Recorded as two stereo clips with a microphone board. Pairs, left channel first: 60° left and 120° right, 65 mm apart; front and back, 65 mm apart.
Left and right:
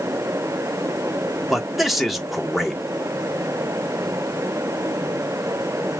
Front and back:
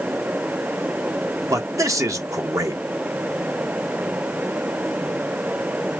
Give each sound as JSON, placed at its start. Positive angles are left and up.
{"t": 1.5, "sound": "a man speaking", "azimuth_deg": 150, "distance_m": 1.3}